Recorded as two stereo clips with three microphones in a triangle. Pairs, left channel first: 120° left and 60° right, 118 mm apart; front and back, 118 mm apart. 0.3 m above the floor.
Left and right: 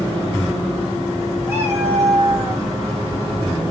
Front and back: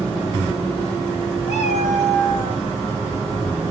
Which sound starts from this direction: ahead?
A cat meowing, at 1.5 s.